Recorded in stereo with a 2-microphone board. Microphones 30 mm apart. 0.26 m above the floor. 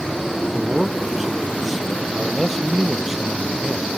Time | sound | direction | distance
0.5 | a man speaking | 10° right (ahead or behind) | ?